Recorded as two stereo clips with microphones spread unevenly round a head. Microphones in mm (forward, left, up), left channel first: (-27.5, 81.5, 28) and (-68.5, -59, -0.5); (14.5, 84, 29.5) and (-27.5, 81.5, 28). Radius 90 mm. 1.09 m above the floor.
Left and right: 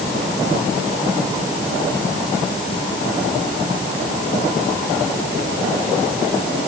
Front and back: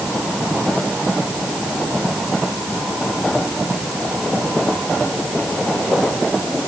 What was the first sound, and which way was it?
Only background noise.